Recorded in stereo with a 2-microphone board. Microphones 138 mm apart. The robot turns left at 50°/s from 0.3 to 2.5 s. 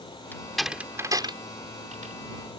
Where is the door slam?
15° left (ahead or behind); by 2.1 s 75° right (ahead or behind).